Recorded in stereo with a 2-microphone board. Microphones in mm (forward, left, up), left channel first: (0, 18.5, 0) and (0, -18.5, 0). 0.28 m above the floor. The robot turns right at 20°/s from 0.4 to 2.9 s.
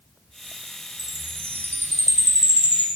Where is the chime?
85° left, 6.5 m; by 2.9 s 125° left, 6.5 m.